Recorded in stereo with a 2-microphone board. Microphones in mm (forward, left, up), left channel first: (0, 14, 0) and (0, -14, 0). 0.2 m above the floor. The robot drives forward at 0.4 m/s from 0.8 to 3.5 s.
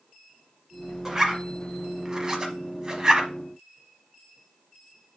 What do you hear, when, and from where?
1.1 s a zipper: 25° right (ahead or behind), 1.4 m; by 3.3 s 30° right (ahead or behind), 1.1 m